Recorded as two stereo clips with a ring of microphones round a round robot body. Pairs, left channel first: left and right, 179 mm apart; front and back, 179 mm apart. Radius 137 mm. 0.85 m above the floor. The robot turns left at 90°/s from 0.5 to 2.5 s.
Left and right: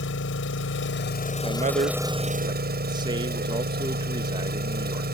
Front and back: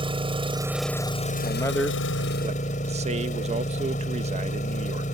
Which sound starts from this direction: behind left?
An engine running, at 0.0 s.